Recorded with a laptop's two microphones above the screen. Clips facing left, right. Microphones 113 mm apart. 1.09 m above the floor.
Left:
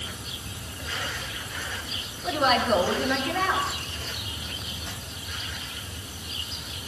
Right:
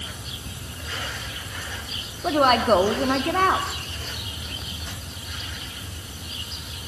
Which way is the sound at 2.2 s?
55° right (ahead or behind).